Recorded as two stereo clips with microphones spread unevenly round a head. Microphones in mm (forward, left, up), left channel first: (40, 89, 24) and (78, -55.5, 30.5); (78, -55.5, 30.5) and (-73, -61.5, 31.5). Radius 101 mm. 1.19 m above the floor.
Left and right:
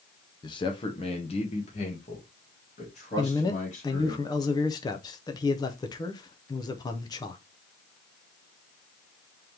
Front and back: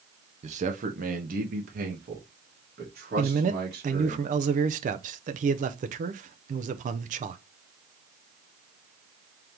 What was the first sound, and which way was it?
A man speaking, 155° left.